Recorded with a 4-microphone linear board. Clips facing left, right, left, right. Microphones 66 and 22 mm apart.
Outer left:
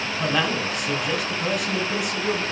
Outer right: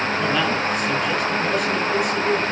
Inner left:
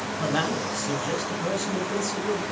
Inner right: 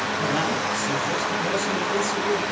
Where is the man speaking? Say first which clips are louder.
Even, even; 5° left (ahead or behind), 4 m.